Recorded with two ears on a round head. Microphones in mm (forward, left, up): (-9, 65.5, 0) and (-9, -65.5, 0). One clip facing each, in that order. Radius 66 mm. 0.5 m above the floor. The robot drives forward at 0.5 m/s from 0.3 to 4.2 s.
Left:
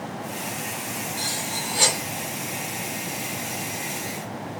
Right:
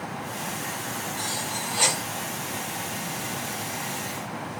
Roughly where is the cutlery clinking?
Left.